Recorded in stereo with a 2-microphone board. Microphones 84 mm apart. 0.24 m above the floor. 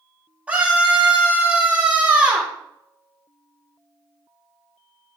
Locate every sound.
0.5 s a scream: 15° right (ahead or behind), 6.5 m